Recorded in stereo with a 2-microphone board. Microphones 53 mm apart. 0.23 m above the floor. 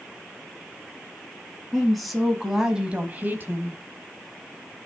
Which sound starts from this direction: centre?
A woman speaking, at 1.7 s.